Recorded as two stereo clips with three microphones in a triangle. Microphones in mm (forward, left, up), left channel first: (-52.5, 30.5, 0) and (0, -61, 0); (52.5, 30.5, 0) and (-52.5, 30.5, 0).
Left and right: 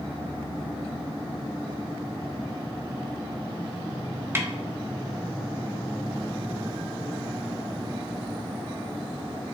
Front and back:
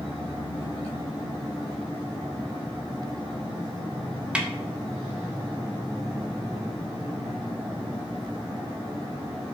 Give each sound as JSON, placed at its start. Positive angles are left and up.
{"t": 4.3, "sound": "a snare drum", "azimuth_deg": -110, "distance_m": 1.0}